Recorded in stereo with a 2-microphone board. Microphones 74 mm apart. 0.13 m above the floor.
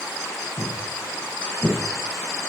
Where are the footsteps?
40° left (ahead or behind), 4.5 m; by 1.8 s 30° left (ahead or behind), 5 m.